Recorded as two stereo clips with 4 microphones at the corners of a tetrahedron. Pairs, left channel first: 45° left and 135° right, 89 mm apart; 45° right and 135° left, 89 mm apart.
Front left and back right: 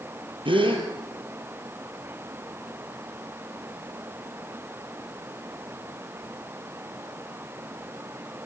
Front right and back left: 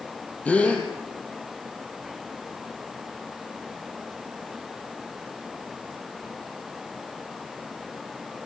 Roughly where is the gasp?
Behind right.